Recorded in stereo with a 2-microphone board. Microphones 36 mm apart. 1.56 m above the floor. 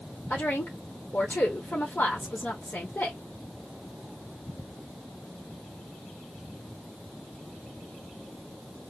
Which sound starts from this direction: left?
A woman speaking, at 0.3 s.